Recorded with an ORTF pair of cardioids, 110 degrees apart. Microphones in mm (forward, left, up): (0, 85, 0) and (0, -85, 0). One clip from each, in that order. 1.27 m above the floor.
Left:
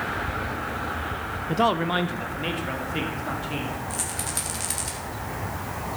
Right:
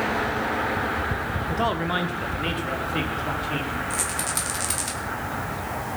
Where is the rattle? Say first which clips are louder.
Right 4 dB; 15° right, 2.5 m.